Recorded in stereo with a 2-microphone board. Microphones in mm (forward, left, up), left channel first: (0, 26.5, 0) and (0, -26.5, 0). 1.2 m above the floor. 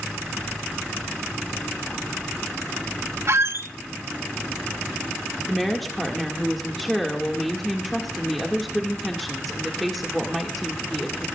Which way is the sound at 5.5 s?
Centre (ahead or behind).